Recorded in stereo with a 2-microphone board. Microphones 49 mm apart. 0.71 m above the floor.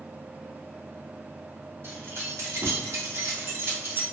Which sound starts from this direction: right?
Keys jangling, at 1.8 s.